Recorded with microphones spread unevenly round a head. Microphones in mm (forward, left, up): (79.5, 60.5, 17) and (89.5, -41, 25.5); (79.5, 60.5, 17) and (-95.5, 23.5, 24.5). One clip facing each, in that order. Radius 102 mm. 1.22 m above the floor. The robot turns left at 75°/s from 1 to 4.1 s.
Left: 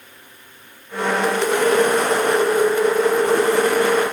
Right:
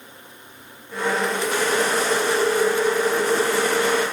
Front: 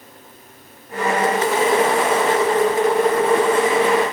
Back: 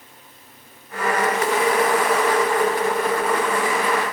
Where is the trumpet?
No trumpet in this recording.